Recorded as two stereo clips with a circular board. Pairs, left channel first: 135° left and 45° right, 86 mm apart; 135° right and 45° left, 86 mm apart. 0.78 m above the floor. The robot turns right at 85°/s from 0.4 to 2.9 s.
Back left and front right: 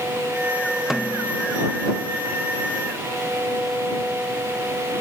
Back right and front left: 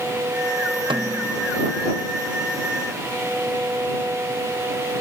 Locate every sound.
0.9 s a snare drum: 40° left; by 1.5 s 90° left